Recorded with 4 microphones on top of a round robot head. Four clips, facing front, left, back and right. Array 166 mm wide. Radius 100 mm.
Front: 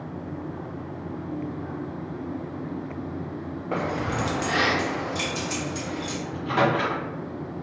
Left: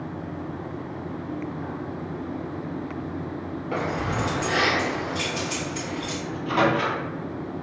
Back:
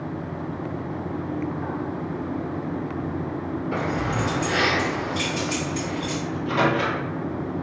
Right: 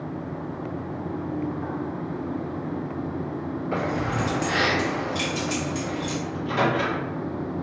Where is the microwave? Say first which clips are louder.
Left 3 dB, even; 15° left, 1.1 m.